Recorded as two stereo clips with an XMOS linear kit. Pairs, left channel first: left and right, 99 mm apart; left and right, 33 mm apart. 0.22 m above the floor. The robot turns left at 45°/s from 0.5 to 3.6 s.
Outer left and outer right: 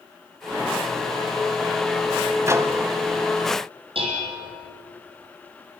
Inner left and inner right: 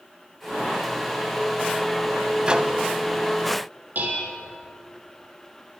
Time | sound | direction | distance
2.5 | a microwave | 30° right (ahead or behind) | 1.2 m
4.0 | dishes clattering | 65° right (ahead or behind) | 5 m